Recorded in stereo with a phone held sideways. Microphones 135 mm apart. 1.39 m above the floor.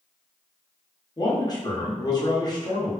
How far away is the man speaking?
About 0.9 m.